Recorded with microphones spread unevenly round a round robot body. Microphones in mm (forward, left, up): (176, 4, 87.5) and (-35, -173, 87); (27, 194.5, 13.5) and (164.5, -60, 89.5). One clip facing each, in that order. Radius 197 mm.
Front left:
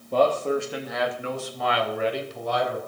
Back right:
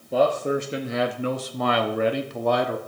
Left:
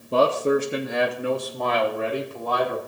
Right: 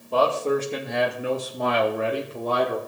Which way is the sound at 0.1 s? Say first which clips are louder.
Even, left 2 dB; 135° left.